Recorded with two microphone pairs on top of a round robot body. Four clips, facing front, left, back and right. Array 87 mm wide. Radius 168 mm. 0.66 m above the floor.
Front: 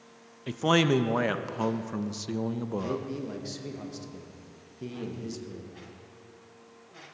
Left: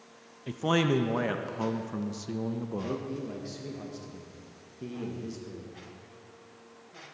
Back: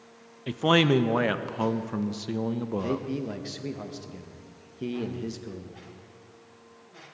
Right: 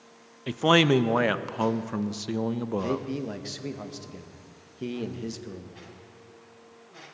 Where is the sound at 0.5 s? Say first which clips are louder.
Right 6 dB, back 2 dB; 90° right, 0.5 m.